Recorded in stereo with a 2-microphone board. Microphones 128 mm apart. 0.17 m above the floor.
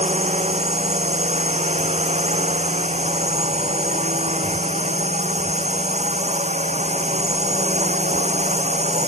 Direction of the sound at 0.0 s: 60° right (ahead or behind).